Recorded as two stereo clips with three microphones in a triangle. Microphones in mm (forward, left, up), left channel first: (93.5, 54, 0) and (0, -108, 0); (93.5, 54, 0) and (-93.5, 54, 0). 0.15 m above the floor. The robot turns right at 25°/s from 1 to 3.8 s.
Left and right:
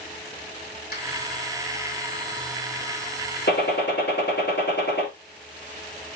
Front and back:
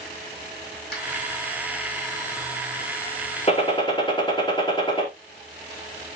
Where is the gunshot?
50° left, 3 m; by 5.1 s 60° left, 3 m.